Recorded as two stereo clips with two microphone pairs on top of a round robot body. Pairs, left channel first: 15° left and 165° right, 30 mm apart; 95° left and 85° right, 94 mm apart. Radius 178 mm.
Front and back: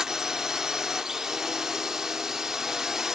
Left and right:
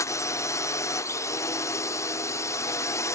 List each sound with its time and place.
0.0 s a drone: 130° left